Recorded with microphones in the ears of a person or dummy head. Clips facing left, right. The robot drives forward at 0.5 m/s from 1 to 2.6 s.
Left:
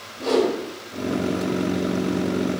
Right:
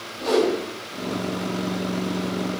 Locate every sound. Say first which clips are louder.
0.2 s a whoosh: even; 10° left (ahead or behind), 1.7 m